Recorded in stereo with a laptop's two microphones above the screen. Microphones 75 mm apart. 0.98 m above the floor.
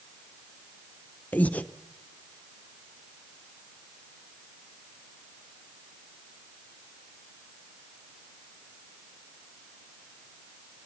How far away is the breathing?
About 0.7 m.